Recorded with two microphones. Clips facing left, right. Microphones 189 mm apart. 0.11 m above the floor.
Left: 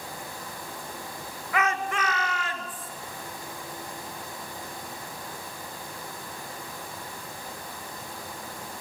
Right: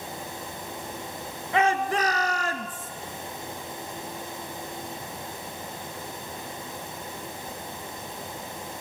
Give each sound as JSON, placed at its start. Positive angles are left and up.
{"t": 1.5, "sound": "a shout", "side_deg": -25, "distance_m": 1.4}